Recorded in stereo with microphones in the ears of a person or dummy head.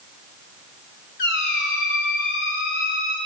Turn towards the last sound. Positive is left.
turn(degrees=55)  # may be behind; listen again after turning